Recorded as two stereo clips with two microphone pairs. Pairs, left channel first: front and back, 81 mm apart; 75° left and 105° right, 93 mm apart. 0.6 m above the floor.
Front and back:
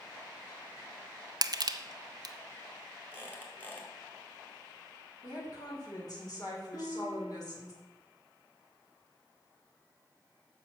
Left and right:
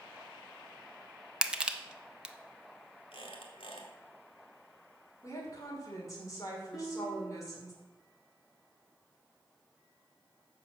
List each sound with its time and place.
1.4 s crushing: straight behind, 0.6 m
3.1 s a squeak: 70° left, 1.8 m
5.2 s a woman speaking: 25° left, 2.5 m
6.7 s a guitar: 10° right, 3.5 m